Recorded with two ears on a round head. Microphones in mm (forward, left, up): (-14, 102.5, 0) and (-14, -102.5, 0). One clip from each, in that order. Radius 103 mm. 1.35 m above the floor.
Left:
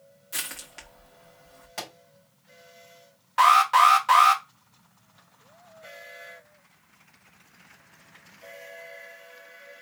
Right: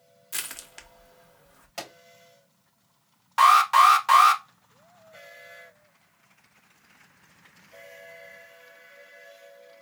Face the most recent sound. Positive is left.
turn(degrees=-20)  # may be behind; listen again after turning